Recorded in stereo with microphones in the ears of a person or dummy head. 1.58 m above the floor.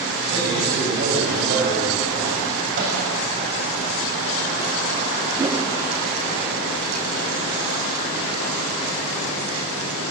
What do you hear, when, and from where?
0.3 s a man speaking: 60° right (ahead or behind), 7.5 m; by 2.5 s 55° right (ahead or behind), 6 m
2.8 s a microwave: 50° right (ahead or behind), 8 m
5.4 s a whoosh: 15° right (ahead or behind), 1.9 m